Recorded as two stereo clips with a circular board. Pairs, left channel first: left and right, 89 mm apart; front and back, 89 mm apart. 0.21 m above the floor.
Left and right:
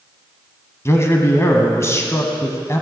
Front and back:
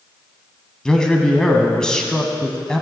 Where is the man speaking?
75° left, 1.3 m.